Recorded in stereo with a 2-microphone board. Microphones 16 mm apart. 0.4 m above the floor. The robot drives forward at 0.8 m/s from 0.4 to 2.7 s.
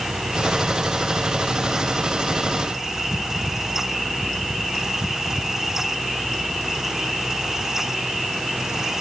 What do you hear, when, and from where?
Only background noise.